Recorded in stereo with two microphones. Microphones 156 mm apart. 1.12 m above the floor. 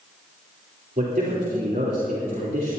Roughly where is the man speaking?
Right.